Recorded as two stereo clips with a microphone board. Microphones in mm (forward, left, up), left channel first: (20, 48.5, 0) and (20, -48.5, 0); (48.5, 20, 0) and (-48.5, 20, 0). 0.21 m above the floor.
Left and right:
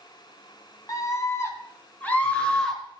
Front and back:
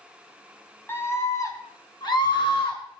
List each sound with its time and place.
0.9 s a scream: 55° left, 2 m; by 3.0 s 5° left, 3 m